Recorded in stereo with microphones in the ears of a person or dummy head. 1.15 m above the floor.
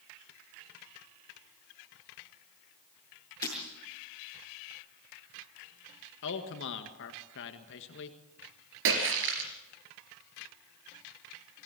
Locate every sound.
3.4 s breaking glass: 20° left (ahead or behind), 7.5 m
6.2 s a man speaking: 65° left (ahead or behind), 1.6 m
8.8 s a splash: 70° right (ahead or behind), 3 m